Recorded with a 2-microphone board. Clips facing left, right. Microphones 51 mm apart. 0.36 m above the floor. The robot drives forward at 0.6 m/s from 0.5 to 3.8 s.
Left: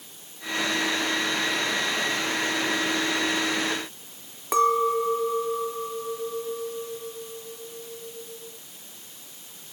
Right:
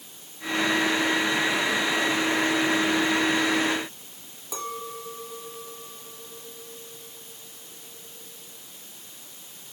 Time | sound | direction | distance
4.5 | a clink | 65° left (ahead or behind) | 1.9 m